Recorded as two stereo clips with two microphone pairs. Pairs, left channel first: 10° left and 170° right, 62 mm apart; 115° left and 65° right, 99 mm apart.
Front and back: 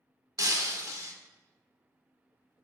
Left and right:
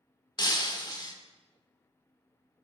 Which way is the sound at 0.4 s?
160° left.